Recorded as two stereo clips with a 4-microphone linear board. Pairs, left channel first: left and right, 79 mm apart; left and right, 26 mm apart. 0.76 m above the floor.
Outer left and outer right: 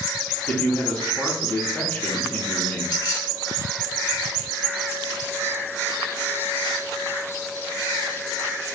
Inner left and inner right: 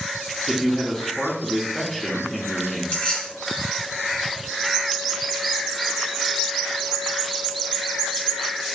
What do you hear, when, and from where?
0.5 s a man speaking: 20° left (ahead or behind), 0.9 m
2.9 s keys jangling: 60° left (ahead or behind), 1.9 m